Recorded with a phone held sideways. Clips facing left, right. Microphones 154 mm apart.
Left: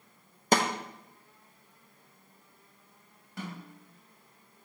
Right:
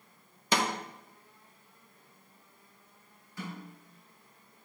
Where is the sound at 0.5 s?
45° left (ahead or behind), 0.6 m.